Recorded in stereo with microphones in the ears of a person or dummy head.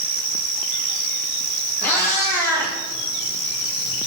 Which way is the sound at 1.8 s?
15° left (ahead or behind).